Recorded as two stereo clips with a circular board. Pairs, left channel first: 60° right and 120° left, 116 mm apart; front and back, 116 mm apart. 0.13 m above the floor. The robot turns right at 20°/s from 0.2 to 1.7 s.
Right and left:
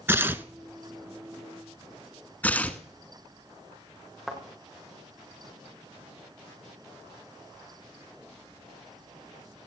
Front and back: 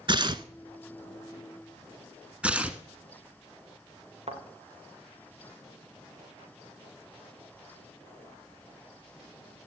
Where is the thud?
150° right, 4.5 m.